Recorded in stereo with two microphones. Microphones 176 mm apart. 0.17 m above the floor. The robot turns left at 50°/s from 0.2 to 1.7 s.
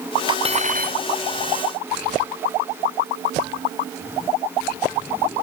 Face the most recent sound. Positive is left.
turn(degrees=-95)